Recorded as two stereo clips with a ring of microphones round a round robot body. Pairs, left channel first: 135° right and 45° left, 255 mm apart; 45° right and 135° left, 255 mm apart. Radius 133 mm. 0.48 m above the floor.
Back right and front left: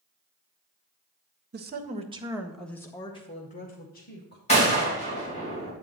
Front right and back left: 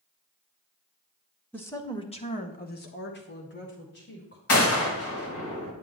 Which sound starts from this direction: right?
A gunshot, at 4.5 s.